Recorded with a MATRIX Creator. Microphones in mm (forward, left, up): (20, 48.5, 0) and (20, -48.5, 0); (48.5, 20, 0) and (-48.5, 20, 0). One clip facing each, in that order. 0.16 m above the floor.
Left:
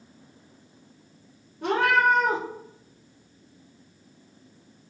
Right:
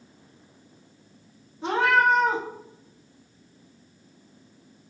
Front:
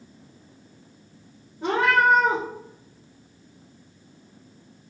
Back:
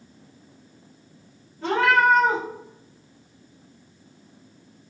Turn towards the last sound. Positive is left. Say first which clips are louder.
# even, back 1 dB
turn(degrees=70)